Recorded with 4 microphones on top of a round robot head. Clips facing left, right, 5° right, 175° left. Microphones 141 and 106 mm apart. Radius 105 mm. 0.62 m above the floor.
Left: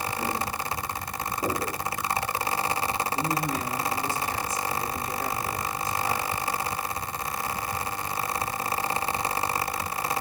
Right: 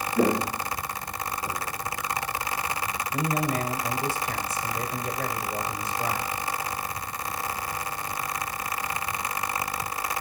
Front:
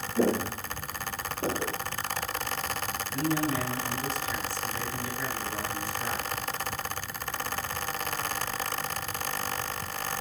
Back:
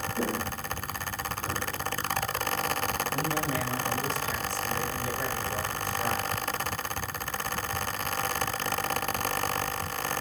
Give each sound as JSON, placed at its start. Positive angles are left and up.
{"t": 0.2, "sound": "footsteps", "azimuth_deg": -75, "distance_m": 0.7}
{"t": 3.1, "sound": "a man speaking", "azimuth_deg": -115, "distance_m": 3.5}